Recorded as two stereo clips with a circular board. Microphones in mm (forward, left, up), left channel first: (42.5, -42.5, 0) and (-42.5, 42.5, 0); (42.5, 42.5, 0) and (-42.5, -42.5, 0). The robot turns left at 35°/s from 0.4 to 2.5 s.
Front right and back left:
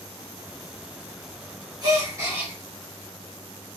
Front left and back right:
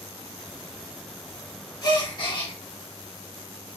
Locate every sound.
1.8 s a gasp: 95° left, 1.3 m; by 2.5 s 70° left, 1.3 m